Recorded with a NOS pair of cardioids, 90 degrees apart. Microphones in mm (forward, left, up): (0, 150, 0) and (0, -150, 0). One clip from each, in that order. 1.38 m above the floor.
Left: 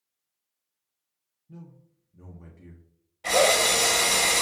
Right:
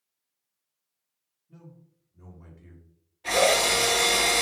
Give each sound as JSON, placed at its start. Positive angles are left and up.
{"t": 1.5, "sound": "a man speaking", "azimuth_deg": 50, "distance_m": 0.6}
{"t": 3.2, "sound": "a drill", "azimuth_deg": 55, "distance_m": 1.1}